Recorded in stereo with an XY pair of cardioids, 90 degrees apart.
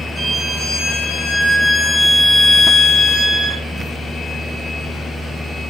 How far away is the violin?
About 2.0 m.